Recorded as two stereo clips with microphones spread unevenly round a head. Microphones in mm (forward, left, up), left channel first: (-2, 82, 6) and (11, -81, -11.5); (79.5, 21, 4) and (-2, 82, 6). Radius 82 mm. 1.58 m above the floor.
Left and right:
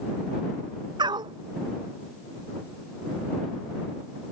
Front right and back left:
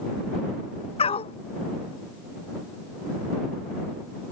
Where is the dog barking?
20° right.